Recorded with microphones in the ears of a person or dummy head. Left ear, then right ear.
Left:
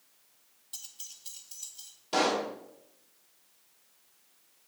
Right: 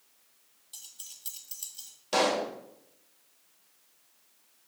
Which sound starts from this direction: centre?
Keys jangling, at 0.7 s.